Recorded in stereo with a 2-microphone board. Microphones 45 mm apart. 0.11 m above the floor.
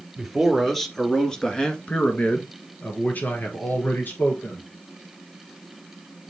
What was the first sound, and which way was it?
A man speaking, centre (ahead or behind).